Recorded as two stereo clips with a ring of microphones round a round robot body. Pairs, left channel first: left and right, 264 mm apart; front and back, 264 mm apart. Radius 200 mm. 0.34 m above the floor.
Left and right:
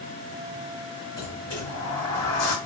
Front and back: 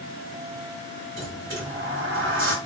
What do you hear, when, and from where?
1.1 s a sliding door: 135° left, 2.5 m